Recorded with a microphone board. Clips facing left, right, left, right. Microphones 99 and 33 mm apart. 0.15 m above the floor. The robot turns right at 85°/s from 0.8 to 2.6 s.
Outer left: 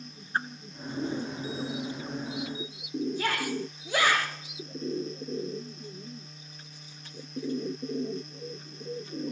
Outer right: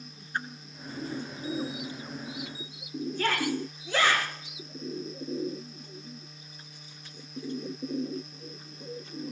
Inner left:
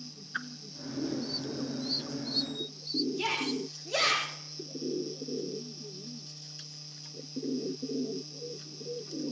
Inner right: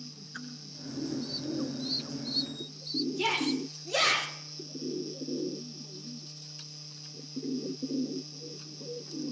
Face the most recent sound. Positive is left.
turn(degrees=15)  # may be behind; listen again after turning